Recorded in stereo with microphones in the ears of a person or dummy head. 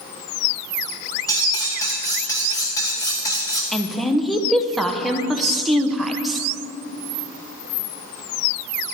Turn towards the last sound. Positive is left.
turn(degrees=5)  # may be behind; listen again after turning